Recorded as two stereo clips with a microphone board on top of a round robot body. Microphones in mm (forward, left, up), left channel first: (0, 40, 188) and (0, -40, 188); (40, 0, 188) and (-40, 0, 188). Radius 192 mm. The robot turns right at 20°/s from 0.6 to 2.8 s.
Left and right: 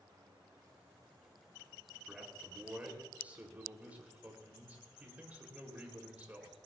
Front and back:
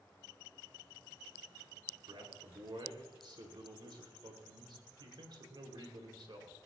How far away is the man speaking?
About 3.5 m.